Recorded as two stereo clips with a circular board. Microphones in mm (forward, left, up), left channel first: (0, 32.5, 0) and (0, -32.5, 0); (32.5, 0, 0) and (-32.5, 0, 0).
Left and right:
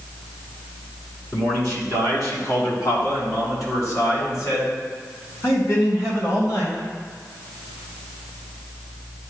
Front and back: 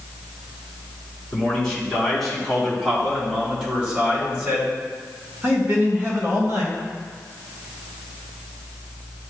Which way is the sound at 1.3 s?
80° left.